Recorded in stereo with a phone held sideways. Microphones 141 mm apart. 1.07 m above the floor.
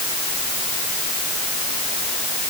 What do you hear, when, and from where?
Only background noise.